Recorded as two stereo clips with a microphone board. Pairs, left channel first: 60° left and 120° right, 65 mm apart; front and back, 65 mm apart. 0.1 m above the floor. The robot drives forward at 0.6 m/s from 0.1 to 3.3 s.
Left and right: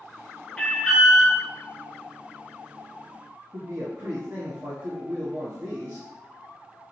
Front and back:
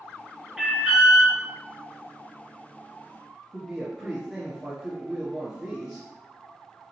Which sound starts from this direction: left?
An alarm, at 0.6 s.